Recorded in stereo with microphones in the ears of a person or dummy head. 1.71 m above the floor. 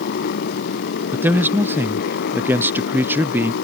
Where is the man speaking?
10° right (ahead or behind).